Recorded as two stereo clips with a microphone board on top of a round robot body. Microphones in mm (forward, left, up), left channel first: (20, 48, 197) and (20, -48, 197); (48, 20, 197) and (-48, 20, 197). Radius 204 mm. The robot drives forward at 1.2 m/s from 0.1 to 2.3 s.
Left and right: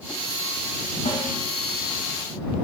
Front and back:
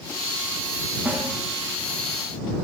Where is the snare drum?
105° left, 6.5 m; by 1.3 s 110° left, 6.5 m.